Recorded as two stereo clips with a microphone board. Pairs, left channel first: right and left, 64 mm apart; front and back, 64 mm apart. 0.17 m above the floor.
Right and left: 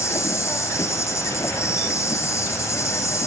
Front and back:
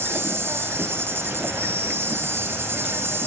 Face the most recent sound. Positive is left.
turn(degrees=-130)